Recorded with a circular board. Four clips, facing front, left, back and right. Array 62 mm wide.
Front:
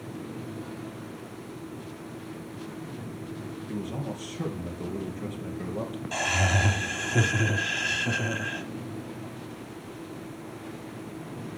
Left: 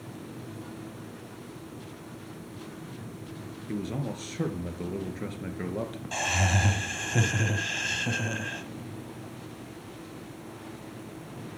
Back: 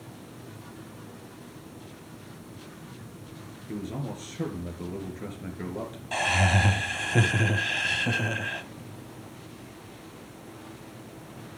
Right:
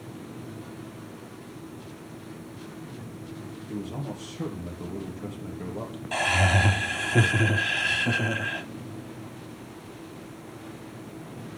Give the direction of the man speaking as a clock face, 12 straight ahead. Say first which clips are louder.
Left 2 dB, even; 9 o'clock.